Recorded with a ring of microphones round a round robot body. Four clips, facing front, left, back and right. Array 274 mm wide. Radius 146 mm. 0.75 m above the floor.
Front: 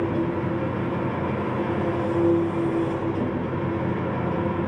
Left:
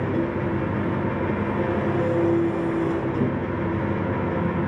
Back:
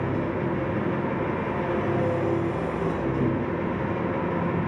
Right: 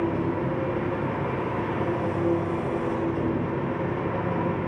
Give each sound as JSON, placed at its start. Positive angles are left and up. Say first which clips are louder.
{"t": 0.0, "sound": "an engine running", "louder": "left 1 dB, front 2 dB", "azimuth_deg": 100, "distance_m": 5.5}